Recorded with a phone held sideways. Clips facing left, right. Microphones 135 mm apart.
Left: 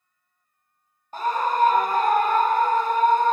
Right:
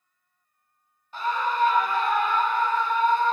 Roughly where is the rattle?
I don't hear a rattle.